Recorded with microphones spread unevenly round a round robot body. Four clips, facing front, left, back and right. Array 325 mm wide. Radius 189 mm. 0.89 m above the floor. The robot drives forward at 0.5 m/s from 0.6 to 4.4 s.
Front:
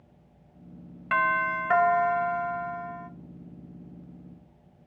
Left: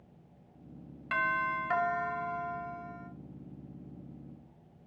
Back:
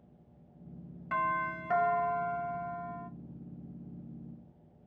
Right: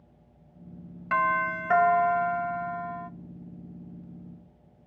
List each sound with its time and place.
1.1 s a doorbell: 30° right, 1.8 m; by 3.1 s 75° right, 1.3 m